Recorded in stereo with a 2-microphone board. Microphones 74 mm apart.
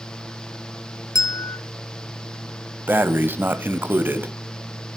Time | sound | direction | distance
1.1 | a bell | 50° left (ahead or behind) | 0.6 m
2.9 | breathing | 25° right (ahead or behind) | 0.7 m